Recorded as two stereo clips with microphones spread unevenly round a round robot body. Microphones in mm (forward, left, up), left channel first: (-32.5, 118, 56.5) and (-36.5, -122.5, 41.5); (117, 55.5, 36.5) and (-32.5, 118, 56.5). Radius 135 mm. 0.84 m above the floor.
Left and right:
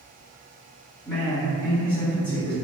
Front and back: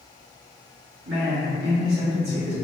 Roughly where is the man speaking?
Behind.